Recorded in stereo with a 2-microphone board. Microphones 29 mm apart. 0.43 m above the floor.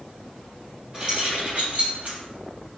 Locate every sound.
0.9 s keys jangling: 30° right (ahead or behind), 1.6 m; by 2.2 s 65° right (ahead or behind), 2.0 m